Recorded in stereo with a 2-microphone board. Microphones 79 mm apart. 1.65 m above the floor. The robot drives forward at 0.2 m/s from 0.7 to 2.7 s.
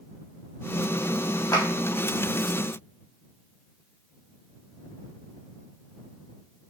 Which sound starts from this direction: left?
A clap, at 1.5 s.